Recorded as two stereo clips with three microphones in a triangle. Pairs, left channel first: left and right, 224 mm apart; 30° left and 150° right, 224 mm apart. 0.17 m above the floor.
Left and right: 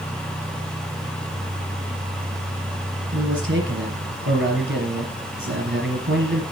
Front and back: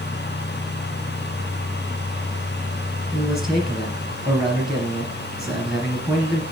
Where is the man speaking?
60° right, 3 m.